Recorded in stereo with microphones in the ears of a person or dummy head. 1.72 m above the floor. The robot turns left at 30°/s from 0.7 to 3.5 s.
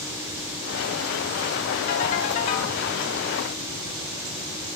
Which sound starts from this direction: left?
A ringtone, at 1.9 s.